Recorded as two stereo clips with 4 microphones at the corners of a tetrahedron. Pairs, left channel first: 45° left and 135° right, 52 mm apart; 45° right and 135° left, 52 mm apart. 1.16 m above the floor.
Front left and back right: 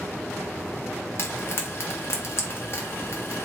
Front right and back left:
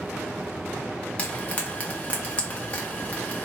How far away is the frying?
About 0.9 m.